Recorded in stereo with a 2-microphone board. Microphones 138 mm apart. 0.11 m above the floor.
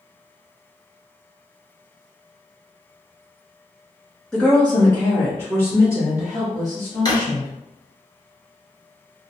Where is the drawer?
30° left (ahead or behind), 1.1 m.